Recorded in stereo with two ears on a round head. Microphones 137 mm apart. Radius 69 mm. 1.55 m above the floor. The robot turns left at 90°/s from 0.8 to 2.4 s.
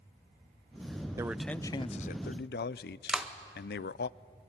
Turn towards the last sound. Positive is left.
turn(degrees=-5)  # may be behind; listen again after turning